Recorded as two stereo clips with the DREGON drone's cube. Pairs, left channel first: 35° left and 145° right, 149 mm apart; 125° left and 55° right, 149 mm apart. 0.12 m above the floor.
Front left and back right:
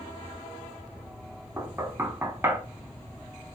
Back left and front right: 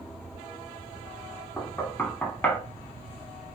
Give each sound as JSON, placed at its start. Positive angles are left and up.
{"t": 1.6, "sound": "knocking", "azimuth_deg": 180, "distance_m": 0.7}